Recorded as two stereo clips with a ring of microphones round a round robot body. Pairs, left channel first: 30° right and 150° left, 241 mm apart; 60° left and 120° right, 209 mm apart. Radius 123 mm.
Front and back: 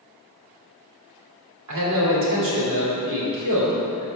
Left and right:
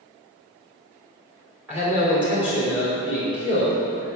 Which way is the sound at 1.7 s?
155° left.